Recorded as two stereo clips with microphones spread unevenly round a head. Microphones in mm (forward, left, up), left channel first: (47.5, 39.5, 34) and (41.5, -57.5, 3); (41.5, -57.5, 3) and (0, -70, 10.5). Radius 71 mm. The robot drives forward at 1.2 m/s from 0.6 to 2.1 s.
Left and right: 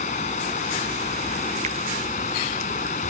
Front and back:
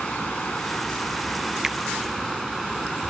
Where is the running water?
100° left; by 3.1 s 105° left.